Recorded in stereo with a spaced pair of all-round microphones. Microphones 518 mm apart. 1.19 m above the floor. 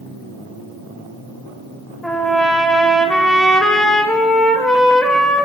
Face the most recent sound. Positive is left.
turn(degrees=0)  # may be behind; listen again after turning